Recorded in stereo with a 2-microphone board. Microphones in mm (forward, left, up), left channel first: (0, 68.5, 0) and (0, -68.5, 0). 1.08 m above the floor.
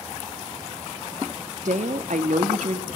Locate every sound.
1.6 s a woman speaking: 60° right (ahead or behind), 1.5 m